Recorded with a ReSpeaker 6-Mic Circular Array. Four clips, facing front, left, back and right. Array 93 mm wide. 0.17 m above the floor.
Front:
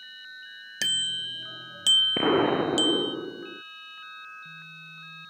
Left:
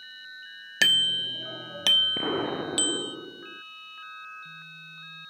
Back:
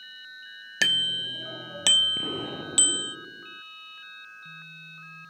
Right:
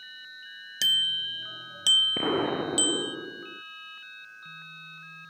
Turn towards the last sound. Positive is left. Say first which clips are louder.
# right 3 dB, front 12 dB
turn(degrees=-5)